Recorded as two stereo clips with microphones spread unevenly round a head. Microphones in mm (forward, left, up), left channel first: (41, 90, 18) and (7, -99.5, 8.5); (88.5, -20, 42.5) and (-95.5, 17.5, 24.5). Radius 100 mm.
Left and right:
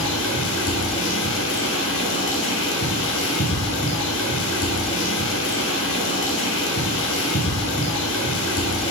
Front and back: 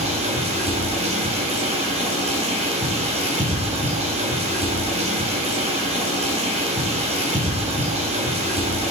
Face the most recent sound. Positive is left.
turn(degrees=110)